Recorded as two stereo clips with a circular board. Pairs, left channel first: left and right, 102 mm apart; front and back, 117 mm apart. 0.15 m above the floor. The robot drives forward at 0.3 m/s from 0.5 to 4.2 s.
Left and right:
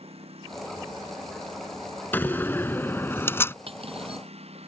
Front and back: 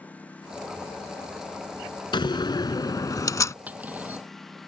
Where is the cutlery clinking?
105° right.